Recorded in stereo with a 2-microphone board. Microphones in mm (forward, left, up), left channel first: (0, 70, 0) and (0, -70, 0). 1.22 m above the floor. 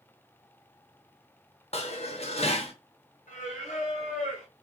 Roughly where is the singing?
Left.